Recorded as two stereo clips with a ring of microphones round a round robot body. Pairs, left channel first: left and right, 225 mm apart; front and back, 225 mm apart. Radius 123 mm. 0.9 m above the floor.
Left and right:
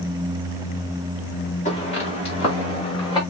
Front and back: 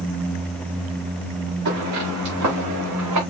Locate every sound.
1.6 s footsteps: 150° left, 6 m; by 3.2 s 160° left, 6 m